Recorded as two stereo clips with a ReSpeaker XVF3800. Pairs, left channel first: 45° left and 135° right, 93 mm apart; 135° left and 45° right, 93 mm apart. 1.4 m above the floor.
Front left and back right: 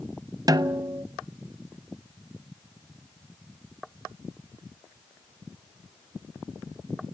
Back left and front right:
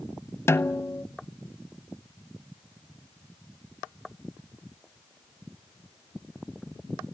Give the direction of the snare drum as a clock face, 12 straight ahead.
6 o'clock.